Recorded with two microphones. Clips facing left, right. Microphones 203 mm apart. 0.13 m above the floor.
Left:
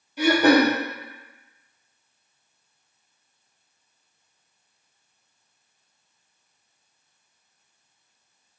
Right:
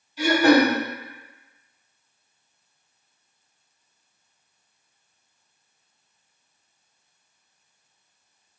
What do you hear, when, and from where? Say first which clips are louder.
0.2 s throat clearing: even; 60° left (ahead or behind), 1.2 m